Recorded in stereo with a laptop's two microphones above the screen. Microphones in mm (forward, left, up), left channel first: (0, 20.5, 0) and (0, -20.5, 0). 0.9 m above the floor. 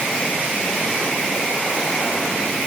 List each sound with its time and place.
Only background noise.